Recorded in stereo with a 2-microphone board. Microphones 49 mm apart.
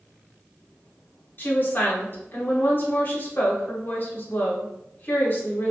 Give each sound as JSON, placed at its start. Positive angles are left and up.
{"t": 1.4, "sound": "a woman speaking", "side_deg": 40, "distance_m": 0.8}